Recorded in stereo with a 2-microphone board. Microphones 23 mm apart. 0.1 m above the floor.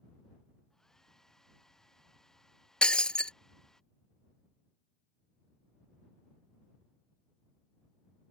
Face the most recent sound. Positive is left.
turn(degrees=45)  # may be behind; listen again after turning